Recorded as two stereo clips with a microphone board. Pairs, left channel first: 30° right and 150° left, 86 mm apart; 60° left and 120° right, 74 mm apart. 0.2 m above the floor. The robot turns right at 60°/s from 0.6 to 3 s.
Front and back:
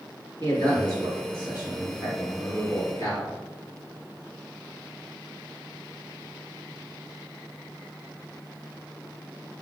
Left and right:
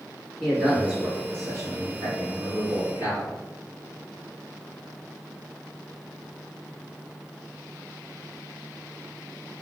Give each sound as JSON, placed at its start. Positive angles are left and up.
{"t": 0.4, "sound": "a man speaking", "azimuth_deg": 145, "distance_m": 1.8}